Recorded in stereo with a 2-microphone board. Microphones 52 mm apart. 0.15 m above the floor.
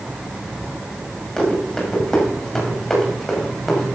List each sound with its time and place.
1.4 s running footsteps: 10° left (ahead or behind), 7 m; by 4.0 s 5° left (ahead or behind), 5.5 m